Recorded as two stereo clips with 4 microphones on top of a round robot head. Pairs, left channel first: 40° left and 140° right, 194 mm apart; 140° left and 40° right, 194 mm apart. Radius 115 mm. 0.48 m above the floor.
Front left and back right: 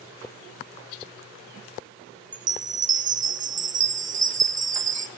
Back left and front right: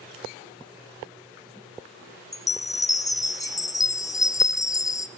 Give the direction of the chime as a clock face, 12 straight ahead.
5 o'clock.